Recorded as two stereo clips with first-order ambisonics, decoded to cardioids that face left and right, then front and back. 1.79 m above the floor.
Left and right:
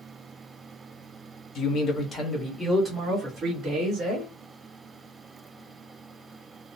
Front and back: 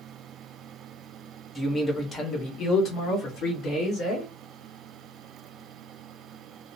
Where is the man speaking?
80° left, 0.8 m; by 4.3 s 30° right, 1.4 m.